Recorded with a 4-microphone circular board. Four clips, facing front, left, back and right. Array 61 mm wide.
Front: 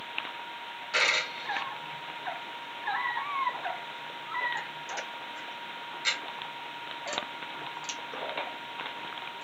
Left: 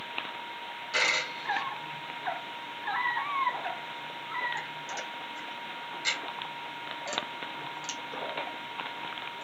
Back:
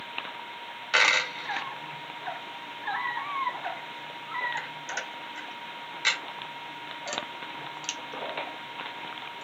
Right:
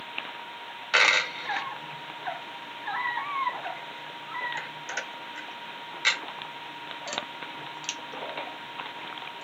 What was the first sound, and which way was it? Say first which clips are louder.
A dropped coin: right 6 dB, back 5 dB; 125° right.